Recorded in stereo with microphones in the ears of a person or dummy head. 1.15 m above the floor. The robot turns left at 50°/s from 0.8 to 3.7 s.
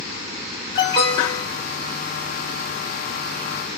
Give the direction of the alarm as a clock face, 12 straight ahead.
8 o'clock.